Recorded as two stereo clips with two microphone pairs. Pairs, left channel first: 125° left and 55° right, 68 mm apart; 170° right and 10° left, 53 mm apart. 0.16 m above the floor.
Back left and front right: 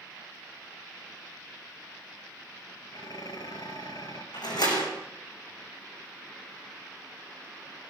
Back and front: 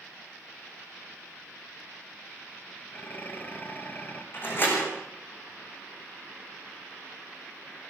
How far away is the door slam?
About 7.5 m.